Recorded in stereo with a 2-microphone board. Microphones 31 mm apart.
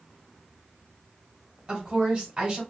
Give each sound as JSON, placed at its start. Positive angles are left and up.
{"t": 1.7, "sound": "a woman speaking", "side_deg": -30, "distance_m": 1.8}